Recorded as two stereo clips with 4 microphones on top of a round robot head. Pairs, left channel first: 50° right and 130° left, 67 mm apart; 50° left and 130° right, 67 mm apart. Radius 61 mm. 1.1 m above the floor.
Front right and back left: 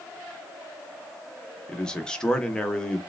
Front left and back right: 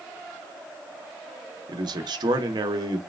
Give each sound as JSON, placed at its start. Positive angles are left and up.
{"t": 1.7, "sound": "a man speaking", "azimuth_deg": -130, "distance_m": 1.0}